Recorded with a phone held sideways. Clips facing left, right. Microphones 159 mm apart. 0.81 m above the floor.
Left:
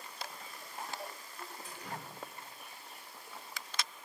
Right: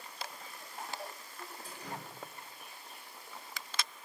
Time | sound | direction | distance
1.6 | dripping | 40° right (ahead or behind) | 2.0 m